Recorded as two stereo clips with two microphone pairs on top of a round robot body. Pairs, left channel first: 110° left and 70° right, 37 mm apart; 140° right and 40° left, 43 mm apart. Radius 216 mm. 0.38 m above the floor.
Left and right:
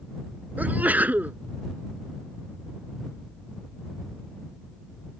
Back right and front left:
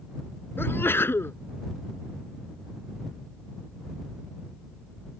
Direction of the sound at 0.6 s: 110° right.